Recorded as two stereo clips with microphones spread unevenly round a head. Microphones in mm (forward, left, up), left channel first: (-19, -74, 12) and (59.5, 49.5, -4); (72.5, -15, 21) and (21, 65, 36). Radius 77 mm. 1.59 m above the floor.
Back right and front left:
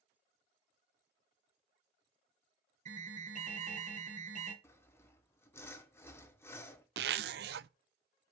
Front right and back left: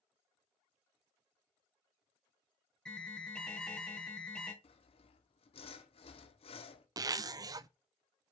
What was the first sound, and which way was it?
An alarm, 20° left.